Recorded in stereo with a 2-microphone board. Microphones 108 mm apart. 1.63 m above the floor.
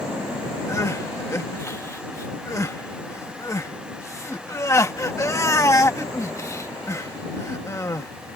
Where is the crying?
30° left (ahead or behind).